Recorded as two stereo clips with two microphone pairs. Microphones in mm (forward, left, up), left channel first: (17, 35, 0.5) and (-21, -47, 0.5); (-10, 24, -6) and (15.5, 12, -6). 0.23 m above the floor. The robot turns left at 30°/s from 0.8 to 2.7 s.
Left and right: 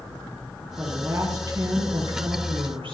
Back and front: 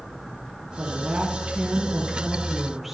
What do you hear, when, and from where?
0.8 s a woman speaking: 50° right, 6 m; by 3.0 s 110° right, 6 m